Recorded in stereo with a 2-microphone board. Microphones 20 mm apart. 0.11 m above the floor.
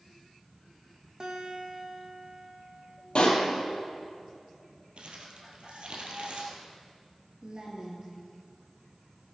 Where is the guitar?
35° right (ahead or behind), 2 m.